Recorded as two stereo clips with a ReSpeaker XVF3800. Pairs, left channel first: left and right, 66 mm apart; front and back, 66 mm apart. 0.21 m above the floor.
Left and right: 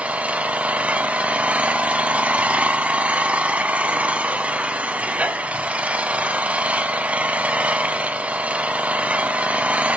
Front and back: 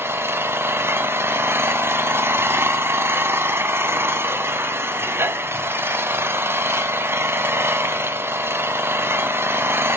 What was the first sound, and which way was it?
An engine running, 150° right.